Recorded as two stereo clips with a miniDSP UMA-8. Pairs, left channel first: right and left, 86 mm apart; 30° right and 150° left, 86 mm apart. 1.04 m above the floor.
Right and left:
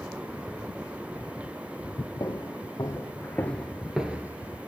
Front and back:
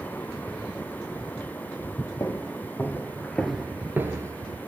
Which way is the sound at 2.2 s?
75° right.